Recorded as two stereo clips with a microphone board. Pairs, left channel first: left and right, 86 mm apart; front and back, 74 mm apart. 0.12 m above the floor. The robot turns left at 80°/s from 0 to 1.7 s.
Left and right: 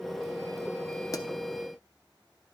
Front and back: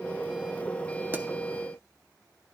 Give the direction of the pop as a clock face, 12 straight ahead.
8 o'clock.